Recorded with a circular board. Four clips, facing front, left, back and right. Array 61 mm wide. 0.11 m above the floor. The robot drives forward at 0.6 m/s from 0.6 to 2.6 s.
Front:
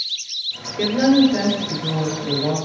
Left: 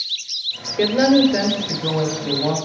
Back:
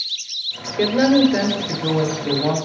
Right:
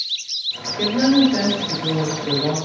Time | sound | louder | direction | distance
0.8 | a woman speaking | left 1 dB, even | 130° left | 1.4 m